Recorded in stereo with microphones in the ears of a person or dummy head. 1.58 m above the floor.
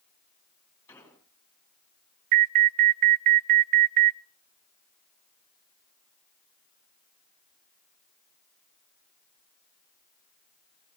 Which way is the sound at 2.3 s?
40° right (ahead or behind).